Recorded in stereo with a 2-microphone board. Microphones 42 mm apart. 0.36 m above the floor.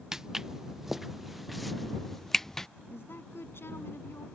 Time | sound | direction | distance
0.1 | footsteps | 10° right (ahead or behind) | ?
2.9 | a woman speaking | 70° left (ahead or behind) | ?